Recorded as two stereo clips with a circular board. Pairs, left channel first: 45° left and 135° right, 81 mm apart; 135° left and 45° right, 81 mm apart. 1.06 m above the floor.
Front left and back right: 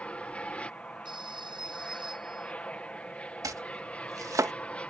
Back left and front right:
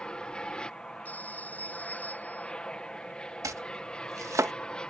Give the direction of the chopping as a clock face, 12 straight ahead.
3 o'clock.